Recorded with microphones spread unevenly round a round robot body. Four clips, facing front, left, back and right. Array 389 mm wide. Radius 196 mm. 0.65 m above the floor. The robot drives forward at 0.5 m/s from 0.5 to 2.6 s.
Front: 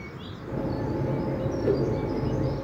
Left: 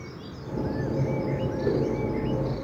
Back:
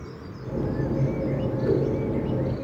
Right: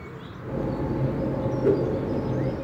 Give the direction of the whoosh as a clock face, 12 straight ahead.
4 o'clock.